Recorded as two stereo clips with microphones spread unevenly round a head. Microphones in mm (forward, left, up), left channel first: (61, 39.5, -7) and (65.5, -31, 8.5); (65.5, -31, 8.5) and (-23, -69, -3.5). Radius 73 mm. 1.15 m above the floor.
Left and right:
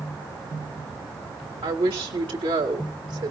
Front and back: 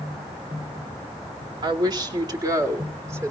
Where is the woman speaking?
115° right, 2.5 m; by 3.3 s 95° right, 3 m.